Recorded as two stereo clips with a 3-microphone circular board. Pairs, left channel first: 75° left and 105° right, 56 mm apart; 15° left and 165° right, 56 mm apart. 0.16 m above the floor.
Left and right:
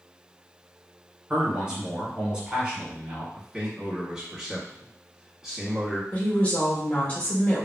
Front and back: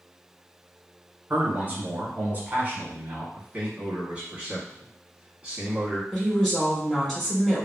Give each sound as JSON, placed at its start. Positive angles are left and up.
{"t": 1.3, "sound": "a man speaking", "azimuth_deg": -160, "distance_m": 1.4}
{"t": 3.4, "sound": "a man speaking", "azimuth_deg": -165, "distance_m": 1.0}
{"t": 6.1, "sound": "a woman speaking", "azimuth_deg": 90, "distance_m": 1.7}